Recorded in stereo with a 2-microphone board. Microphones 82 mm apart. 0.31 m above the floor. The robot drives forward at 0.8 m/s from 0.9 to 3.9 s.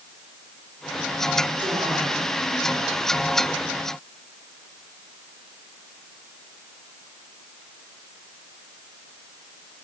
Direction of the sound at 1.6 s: 65° right (ahead or behind).